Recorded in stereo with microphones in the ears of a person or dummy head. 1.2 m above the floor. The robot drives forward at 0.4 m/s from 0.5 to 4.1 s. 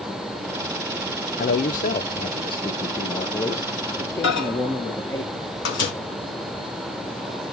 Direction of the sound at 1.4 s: 35° left (ahead or behind).